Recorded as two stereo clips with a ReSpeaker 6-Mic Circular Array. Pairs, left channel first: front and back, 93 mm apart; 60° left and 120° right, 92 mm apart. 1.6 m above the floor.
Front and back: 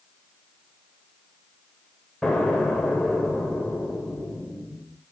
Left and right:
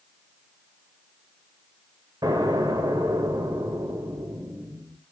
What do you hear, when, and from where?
2.2 s an explosion: 80° right, 2 m